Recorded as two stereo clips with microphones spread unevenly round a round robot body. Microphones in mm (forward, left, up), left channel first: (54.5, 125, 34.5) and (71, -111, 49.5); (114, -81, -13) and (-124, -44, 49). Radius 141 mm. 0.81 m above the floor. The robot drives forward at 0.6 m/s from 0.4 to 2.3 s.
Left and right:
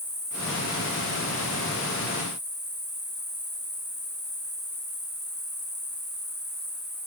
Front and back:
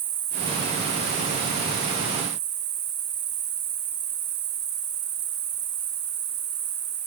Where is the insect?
170° left, 2.5 m; by 7.1 s 175° left, 3.5 m.